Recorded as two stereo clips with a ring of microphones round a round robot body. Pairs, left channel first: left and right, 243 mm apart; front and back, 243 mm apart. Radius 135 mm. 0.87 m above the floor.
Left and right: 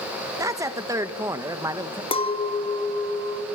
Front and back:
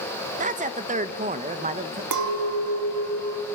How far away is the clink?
About 0.9 m.